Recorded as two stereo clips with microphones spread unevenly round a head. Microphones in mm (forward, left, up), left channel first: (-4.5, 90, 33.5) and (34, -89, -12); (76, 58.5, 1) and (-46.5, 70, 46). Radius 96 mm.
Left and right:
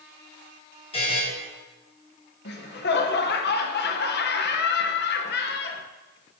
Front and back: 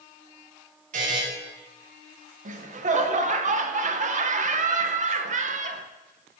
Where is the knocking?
I don't hear knocking.